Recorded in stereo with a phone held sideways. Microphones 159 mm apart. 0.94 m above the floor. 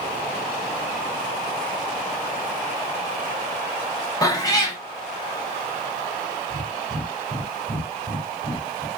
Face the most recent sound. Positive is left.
turn(degrees=-30)  # may be behind; listen again after turning